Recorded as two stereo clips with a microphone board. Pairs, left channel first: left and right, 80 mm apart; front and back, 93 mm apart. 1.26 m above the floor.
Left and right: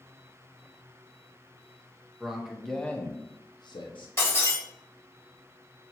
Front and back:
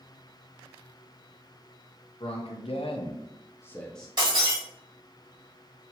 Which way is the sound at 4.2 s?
145° left.